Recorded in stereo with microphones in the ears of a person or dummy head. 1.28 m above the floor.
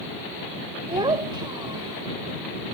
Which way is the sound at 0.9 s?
20° right (ahead or behind).